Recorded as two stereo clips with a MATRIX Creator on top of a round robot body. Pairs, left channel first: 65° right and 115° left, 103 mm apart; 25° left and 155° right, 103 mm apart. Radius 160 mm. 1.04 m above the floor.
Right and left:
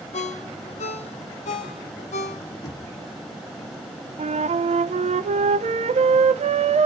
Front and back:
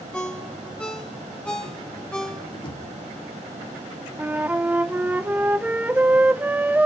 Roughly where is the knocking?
Ahead.